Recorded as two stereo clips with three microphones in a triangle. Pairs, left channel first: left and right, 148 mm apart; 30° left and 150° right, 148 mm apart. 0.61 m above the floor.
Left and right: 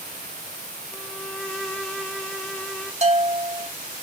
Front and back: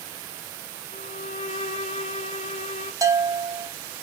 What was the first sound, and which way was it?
A violin, 5° left.